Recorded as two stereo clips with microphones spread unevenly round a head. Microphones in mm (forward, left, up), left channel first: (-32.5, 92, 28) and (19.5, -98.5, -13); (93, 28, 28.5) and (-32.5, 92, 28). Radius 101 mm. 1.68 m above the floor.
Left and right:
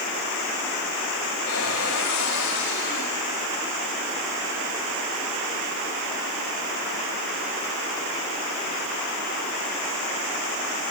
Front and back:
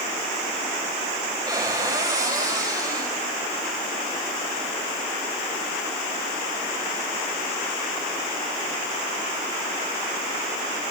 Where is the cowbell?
No cowbell in this recording.